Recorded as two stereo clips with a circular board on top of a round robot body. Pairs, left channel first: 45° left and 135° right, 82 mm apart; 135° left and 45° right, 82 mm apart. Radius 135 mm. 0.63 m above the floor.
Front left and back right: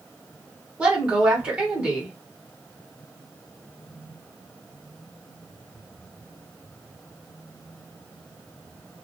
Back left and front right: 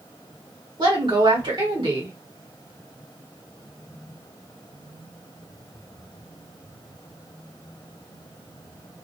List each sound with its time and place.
0.8 s a woman speaking: 60° right, 2 m